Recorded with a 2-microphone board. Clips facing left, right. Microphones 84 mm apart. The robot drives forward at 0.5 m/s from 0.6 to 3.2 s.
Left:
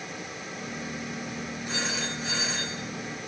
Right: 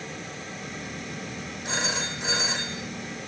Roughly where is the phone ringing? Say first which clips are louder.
Right 3 dB; right.